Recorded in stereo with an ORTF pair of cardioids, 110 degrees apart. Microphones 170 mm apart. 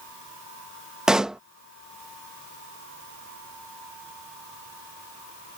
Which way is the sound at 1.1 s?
5° right.